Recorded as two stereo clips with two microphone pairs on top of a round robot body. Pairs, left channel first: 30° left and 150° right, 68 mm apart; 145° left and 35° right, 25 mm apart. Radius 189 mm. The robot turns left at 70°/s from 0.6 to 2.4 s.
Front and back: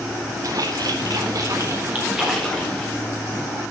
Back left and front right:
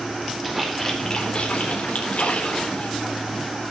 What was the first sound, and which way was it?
A splash, 120° right.